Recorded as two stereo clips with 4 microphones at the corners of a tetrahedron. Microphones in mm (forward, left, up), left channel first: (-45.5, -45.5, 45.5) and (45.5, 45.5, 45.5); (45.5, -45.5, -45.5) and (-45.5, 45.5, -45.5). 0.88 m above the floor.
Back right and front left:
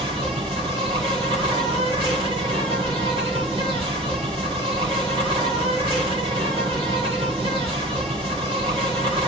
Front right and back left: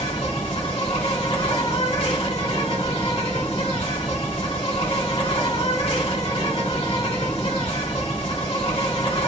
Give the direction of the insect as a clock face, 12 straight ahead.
12 o'clock.